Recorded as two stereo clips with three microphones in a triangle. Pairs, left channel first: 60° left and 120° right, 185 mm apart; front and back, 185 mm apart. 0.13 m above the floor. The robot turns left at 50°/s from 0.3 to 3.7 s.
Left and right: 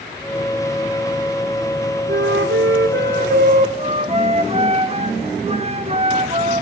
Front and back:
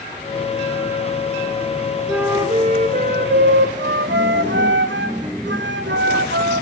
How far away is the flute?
About 1.5 m.